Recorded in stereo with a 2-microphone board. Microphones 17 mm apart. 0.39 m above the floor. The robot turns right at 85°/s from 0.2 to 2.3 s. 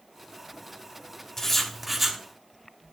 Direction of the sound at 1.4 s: 145° left.